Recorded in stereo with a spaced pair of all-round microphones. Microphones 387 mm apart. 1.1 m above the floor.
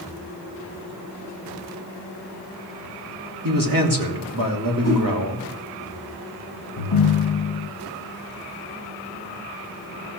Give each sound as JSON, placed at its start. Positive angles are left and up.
{"t": 3.4, "sound": "a man speaking", "side_deg": -55, "distance_m": 3.0}
{"t": 4.8, "sound": "a whoosh", "side_deg": -40, "distance_m": 8.5}
{"t": 6.8, "sound": "a ringtone", "side_deg": 80, "distance_m": 1.0}